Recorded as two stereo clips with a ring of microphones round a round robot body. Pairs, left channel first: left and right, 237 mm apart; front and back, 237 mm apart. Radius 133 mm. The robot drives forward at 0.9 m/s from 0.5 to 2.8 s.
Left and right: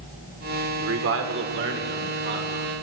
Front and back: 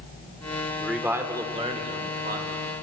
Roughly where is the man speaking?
Right.